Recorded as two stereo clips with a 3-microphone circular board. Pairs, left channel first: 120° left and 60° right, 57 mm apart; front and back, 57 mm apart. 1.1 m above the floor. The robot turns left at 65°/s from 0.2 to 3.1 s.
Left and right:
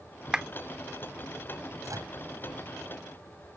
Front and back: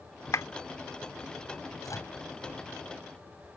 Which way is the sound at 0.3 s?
20° left.